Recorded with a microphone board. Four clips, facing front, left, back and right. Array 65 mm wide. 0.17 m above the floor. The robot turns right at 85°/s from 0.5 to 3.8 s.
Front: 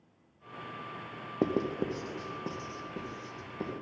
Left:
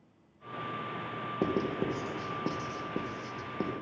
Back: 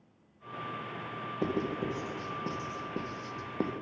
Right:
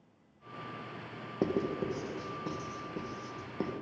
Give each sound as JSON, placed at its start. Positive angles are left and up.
{"t": 1.4, "sound": "writing", "azimuth_deg": -5, "distance_m": 2.0}